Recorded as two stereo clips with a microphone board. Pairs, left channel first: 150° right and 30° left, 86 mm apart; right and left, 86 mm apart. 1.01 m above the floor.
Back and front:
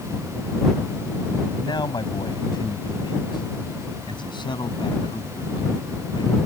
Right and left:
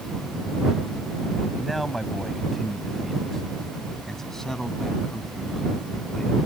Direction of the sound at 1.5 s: Straight behind.